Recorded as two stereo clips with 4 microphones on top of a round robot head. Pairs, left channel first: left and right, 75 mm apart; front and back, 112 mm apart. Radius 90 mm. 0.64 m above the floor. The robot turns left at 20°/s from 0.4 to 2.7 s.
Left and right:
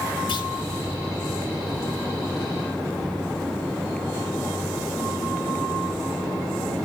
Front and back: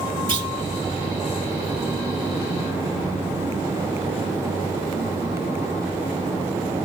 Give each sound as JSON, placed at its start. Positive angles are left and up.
{"t": 0.3, "sound": "a clunk", "azimuth_deg": 135, "distance_m": 2.5}